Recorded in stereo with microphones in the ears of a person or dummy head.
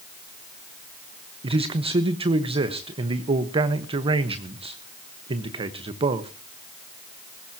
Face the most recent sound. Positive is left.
turn(degrees=-30)  # may be behind; listen again after turning